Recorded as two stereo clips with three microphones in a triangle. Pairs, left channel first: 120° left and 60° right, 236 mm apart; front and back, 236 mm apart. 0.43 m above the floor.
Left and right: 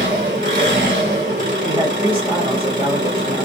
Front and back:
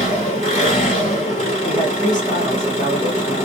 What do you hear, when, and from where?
0.0 s an engine running: 40° right, 1.8 m
1.6 s a man speaking: 15° right, 1.6 m